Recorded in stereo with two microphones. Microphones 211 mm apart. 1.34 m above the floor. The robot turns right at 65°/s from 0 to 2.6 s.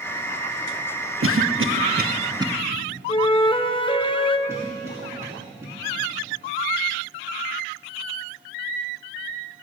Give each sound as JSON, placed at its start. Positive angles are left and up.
{"t": 1.2, "sound": "a cough", "side_deg": -80, "distance_m": 0.8}
{"t": 3.1, "sound": "a flute", "side_deg": 25, "distance_m": 0.8}
{"t": 4.5, "sound": "a cough", "side_deg": -15, "distance_m": 2.5}